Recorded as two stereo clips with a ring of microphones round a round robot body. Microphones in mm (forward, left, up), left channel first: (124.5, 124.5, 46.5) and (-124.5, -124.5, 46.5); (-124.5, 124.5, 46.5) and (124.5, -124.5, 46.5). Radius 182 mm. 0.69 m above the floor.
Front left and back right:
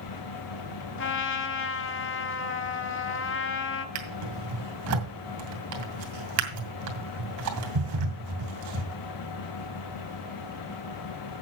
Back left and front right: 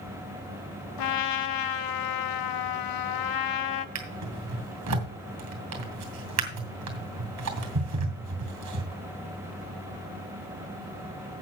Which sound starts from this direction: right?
A drawer, at 4.0 s.